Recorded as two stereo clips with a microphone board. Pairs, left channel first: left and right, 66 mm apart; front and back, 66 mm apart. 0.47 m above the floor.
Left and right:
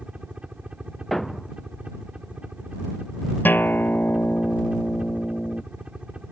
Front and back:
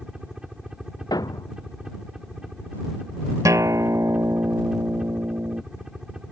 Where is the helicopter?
125° right.